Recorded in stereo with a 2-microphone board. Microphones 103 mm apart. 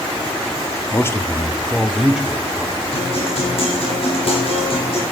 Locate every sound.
0.9 s a man speaking: 25° left (ahead or behind), 0.7 m; by 2.8 s 15° right (ahead or behind), 1.5 m
2.9 s a guitar: 55° left (ahead or behind), 8 m